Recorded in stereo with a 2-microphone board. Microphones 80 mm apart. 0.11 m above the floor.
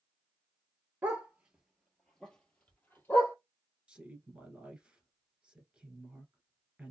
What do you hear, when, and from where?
1.0 s a dog barking: 25° right (ahead or behind), 0.9 m; by 3.4 s 30° left (ahead or behind), 1.4 m
3.9 s a woman speaking: 15° right (ahead or behind), 1.3 m